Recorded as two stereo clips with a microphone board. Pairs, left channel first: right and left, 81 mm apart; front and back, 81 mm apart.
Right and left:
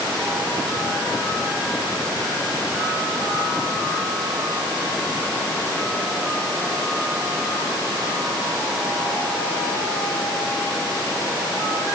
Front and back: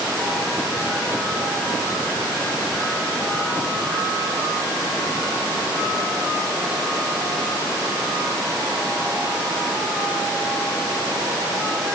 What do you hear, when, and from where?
Only background noise.